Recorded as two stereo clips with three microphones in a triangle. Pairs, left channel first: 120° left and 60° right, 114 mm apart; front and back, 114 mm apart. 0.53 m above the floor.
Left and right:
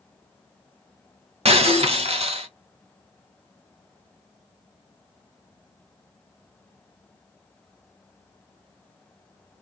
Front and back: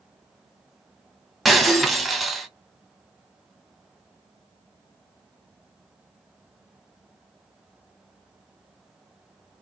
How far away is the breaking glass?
About 1.5 m.